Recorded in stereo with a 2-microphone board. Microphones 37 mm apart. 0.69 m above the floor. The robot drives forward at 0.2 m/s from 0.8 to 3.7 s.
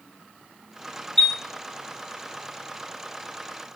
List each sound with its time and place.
1.2 s a chime: 15° left (ahead or behind), 0.8 m